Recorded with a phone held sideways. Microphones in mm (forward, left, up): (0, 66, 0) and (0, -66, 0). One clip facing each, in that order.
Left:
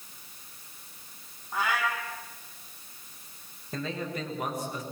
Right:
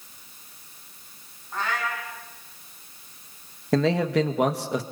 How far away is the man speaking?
About 1.7 m.